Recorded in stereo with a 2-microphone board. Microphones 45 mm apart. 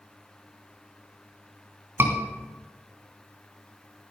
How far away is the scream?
About 3 m.